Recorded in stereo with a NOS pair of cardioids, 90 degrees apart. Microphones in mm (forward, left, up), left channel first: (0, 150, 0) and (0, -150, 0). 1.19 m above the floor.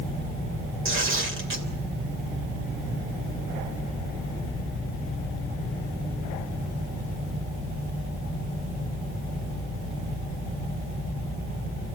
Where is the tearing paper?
40° right, 3 m.